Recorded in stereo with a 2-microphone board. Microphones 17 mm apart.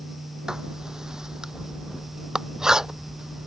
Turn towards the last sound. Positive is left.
turn(degrees=-45)  # may be behind; listen again after turning